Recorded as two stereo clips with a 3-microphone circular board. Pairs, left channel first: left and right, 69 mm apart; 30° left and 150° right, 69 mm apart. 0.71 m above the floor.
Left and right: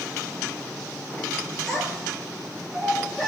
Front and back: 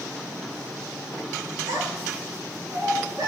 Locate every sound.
1.7 s a child speaking: straight behind, 9.5 m